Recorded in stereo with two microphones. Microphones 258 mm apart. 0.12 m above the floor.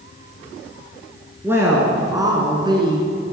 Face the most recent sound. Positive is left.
turn(degrees=-20)  # may be behind; listen again after turning